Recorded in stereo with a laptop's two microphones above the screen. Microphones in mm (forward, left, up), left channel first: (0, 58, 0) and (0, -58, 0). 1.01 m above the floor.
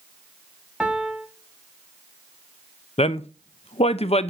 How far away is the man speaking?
About 0.6 m.